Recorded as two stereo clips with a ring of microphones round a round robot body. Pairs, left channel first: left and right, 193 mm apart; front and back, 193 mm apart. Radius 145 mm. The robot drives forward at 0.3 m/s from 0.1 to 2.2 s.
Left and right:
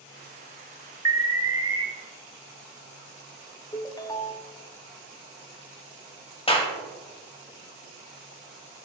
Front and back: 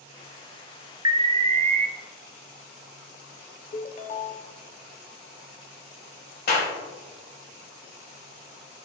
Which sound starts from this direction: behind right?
An alarm, at 1.1 s.